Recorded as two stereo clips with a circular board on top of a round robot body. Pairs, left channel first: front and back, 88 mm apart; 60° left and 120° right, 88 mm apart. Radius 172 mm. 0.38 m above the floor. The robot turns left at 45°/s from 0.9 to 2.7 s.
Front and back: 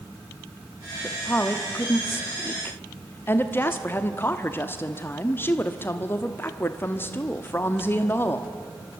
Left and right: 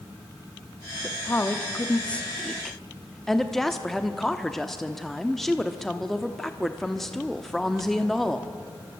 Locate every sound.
1.0 s a woman speaking: 50° left, 1.3 m; by 8.5 s 25° right, 1.3 m